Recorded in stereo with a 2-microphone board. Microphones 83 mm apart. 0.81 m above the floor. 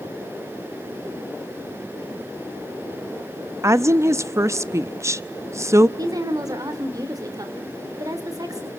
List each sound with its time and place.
3.6 s a woman speaking: 35° right (ahead or behind), 0.8 m
6.0 s a woman speaking: 45° right (ahead or behind), 2.5 m